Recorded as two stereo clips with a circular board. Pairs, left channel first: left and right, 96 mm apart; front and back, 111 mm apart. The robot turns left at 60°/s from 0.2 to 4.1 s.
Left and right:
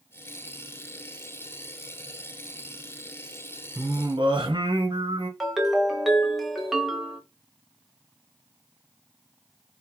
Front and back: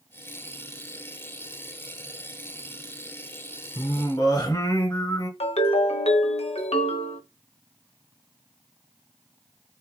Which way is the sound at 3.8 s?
35° right.